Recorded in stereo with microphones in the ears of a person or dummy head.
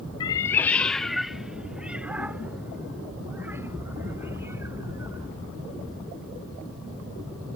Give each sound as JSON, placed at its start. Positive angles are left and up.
{"t": 0.2, "sound": "a cat meowing", "side_deg": 30}